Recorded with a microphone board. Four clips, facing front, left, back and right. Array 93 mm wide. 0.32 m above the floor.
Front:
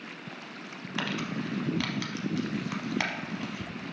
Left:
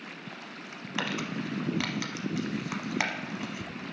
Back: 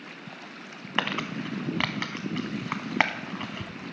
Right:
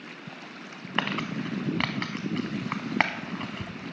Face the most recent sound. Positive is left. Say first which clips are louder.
# right 3 dB, back 3 dB
turn(degrees=-140)